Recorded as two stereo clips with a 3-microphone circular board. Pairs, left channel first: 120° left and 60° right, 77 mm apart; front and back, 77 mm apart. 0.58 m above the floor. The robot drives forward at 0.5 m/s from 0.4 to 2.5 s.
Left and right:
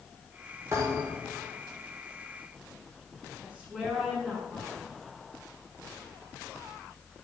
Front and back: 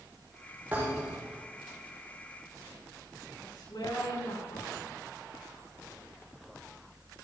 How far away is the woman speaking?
About 7 m.